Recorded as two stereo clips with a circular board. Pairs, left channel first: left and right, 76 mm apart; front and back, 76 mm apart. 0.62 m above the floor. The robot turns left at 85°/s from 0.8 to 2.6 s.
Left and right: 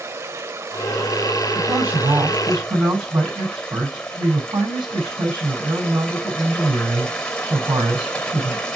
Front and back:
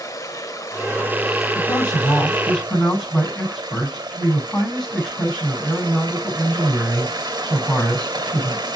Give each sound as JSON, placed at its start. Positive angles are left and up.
{"t": 0.0, "sound": "running water", "azimuth_deg": -35, "distance_m": 2.0}
{"t": 1.6, "sound": "a man speaking", "azimuth_deg": 5, "distance_m": 6.0}